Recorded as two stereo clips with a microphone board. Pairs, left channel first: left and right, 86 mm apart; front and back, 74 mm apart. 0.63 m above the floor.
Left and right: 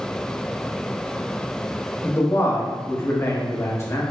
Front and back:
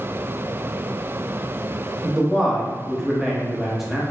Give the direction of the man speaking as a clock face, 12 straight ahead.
9 o'clock.